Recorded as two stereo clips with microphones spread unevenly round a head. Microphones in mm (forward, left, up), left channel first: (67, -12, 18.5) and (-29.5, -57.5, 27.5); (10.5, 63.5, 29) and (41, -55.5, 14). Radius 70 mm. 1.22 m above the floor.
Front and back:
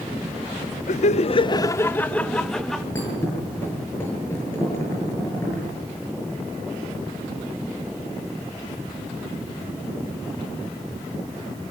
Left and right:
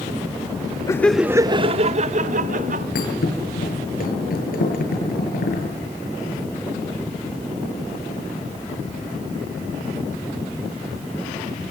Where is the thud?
100° left, 9 m.